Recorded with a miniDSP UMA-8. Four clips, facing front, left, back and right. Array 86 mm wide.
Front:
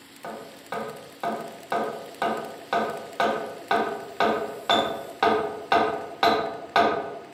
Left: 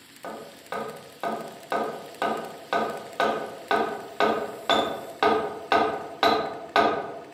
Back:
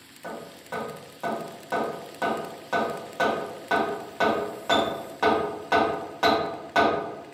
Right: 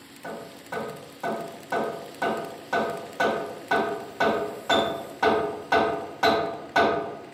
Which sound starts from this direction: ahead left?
Hammering, at 0.2 s.